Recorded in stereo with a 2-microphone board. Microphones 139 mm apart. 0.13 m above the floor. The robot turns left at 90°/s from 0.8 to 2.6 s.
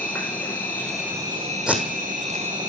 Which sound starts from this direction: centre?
Tape being pulled, at 1.7 s.